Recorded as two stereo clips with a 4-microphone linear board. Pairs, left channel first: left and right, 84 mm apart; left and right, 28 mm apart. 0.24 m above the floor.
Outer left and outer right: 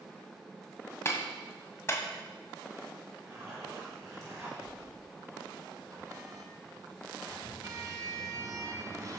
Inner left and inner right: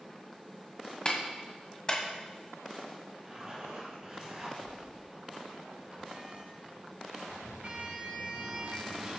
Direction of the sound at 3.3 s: 35° right (ahead or behind).